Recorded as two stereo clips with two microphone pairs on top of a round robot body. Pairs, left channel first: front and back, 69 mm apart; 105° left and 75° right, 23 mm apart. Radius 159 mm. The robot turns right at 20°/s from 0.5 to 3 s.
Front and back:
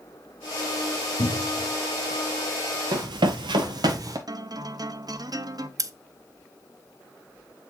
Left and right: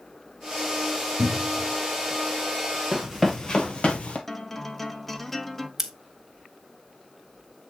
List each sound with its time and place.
1.2 s a cupboard door: 40° left, 0.9 m; by 1.7 s 50° left, 0.9 m
2.9 s running footsteps: 145° right, 0.7 m; by 4.2 s 135° left, 1.0 m
4.3 s a guitar: straight behind, 1.1 m
5.8 s scissors: 150° right, 1.5 m